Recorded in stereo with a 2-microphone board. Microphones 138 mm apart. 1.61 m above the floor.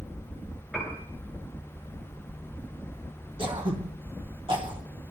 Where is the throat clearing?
40° right (ahead or behind), 2 m.